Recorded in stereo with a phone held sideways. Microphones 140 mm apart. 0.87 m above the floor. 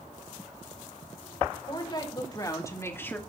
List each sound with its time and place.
1.7 s a woman speaking: 35° left (ahead or behind), 3 m; by 3.2 s 10° left (ahead or behind), 1.7 m